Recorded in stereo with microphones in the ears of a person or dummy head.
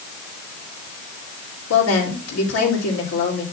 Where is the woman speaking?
80° left, 3 m.